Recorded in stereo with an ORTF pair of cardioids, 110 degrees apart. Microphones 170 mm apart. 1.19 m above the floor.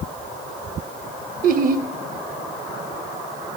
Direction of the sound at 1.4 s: 55° right.